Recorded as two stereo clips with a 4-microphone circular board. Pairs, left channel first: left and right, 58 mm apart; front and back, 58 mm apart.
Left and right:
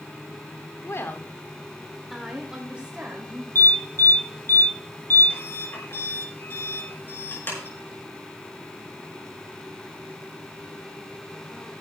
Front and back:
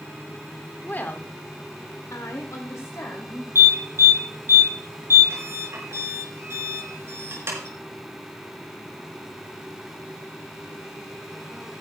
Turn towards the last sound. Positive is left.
turn(degrees=140)